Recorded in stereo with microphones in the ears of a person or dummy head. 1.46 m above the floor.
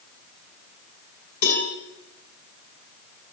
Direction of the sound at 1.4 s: 55° left (ahead or behind).